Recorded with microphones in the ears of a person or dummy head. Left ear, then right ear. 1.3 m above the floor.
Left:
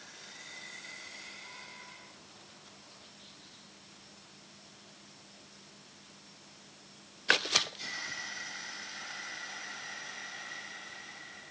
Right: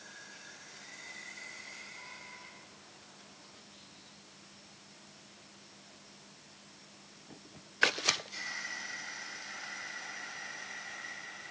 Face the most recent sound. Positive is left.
No sound to turn to.